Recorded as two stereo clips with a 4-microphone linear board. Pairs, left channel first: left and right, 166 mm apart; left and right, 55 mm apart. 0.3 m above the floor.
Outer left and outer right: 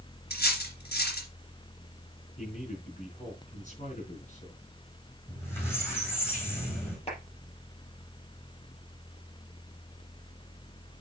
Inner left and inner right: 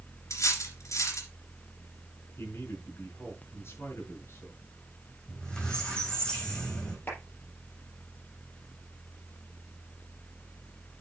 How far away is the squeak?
About 4.5 m.